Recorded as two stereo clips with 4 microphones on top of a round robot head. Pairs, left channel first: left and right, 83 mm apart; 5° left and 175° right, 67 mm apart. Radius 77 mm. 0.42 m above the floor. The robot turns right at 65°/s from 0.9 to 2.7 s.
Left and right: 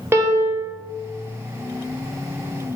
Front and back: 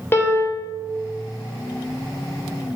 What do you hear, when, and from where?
0.1 s a piano: 40° right, 1.2 m